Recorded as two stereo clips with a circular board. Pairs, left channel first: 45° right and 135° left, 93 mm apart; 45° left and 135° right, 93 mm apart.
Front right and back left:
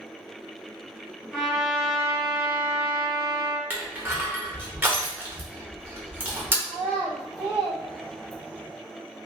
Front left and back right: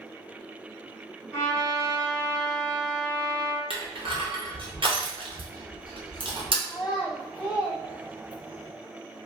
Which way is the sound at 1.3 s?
45° left.